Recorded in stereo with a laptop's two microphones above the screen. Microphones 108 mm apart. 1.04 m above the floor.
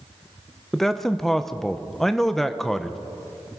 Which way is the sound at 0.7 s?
5° left (ahead or behind).